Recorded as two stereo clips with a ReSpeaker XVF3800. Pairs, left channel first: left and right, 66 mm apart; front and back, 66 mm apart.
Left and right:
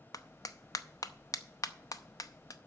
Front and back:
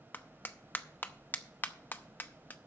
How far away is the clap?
About 0.7 m.